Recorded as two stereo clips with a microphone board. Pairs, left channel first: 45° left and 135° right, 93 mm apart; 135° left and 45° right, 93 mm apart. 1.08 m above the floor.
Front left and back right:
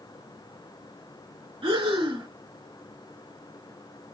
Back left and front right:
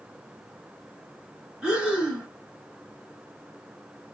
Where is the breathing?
125° right, 1.5 m.